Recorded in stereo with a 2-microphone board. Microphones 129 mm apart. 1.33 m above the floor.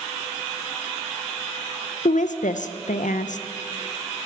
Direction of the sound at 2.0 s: 80° left.